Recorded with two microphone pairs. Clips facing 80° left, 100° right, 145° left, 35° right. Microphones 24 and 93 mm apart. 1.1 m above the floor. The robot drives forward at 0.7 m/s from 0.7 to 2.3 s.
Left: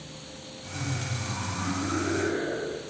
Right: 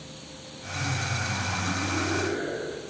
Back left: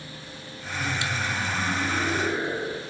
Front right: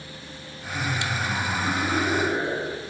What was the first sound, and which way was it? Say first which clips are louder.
Laughter: right 4 dB, front right 1 dB; 10° left.